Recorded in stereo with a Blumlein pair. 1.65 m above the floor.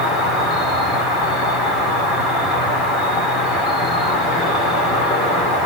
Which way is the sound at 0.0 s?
20° left.